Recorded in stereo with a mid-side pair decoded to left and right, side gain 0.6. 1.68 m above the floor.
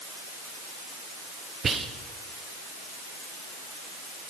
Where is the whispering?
35° right, 0.9 m.